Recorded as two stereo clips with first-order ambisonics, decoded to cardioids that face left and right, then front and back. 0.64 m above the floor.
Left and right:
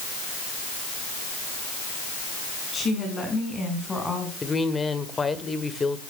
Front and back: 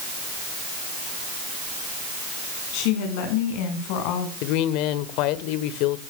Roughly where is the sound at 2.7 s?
Ahead.